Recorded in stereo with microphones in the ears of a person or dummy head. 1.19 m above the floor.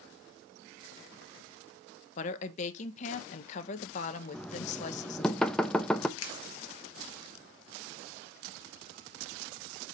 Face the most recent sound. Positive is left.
turn(degrees=85)